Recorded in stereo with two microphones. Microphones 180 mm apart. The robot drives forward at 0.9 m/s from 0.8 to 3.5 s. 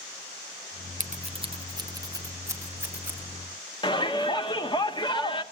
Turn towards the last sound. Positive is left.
turn(degrees=25)  # may be behind; listen again after turning